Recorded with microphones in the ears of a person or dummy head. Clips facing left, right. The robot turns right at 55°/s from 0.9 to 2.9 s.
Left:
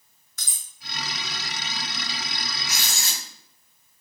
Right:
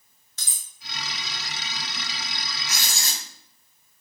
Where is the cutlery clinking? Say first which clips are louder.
Even; 25° right (ahead or behind), 0.9 m.